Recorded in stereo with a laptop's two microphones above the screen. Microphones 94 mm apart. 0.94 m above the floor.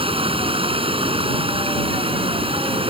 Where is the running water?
75° right (ahead or behind).